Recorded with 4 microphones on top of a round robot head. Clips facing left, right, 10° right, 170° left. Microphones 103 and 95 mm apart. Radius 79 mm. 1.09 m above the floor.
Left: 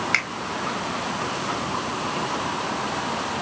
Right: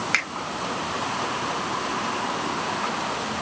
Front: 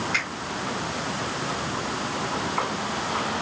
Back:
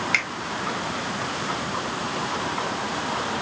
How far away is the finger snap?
About 1.4 m.